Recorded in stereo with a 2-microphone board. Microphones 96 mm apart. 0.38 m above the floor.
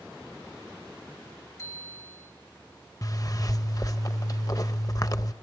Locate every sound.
1.6 s a bicycle bell: 35° left (ahead or behind), 5 m
3.0 s a zipper: 45° left (ahead or behind), 0.7 m